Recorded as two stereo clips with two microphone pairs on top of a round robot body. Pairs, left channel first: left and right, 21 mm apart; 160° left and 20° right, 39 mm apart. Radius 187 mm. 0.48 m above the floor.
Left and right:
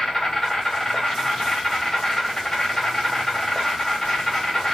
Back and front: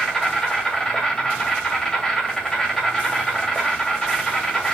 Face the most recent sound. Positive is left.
turn(degrees=105)